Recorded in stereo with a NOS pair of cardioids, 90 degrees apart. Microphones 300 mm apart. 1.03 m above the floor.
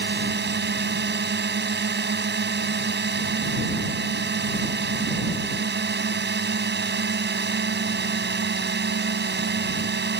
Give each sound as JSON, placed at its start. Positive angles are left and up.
{"t": 0.0, "sound": "a drone", "azimuth_deg": -35}